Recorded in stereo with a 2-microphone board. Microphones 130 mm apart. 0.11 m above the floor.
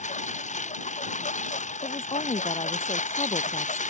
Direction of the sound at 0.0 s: 70° left (ahead or behind).